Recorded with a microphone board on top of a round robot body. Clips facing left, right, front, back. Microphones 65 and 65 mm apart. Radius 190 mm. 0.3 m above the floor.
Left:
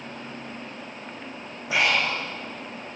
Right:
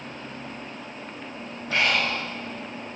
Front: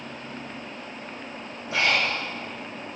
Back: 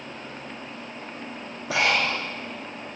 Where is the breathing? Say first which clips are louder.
Left 1 dB, back 1 dB; 170° left, 6 m.